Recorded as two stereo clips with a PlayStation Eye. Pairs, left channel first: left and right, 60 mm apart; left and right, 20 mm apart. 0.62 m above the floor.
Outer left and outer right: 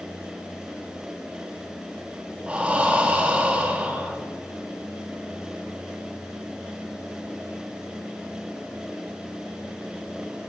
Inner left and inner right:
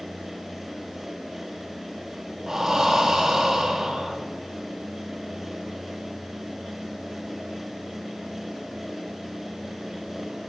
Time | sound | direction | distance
2.5 | breathing | 20° right (ahead or behind) | 0.8 m